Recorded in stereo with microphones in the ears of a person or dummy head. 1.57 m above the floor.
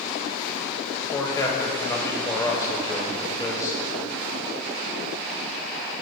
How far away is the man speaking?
About 1.2 m.